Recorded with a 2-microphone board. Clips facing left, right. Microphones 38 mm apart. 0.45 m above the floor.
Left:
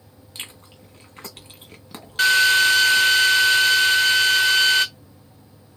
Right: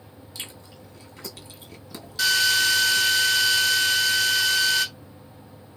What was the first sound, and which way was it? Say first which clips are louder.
Chewing: left 2 dB; 45° left (ahead or behind).